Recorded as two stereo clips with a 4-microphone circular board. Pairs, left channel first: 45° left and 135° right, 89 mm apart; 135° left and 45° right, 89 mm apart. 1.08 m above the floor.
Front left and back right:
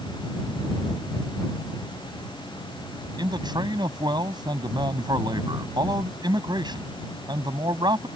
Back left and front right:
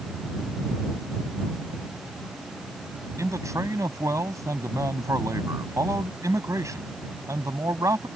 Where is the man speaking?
100° right.